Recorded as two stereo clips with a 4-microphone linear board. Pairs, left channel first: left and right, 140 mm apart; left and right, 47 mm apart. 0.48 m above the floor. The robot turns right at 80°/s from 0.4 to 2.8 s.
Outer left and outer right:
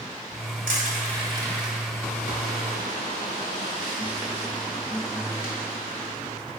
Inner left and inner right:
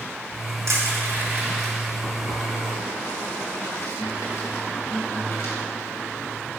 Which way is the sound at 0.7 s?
75° right (ahead or behind).